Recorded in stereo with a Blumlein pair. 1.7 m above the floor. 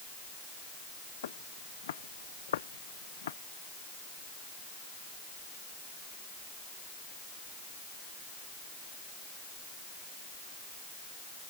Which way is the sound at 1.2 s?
60° left.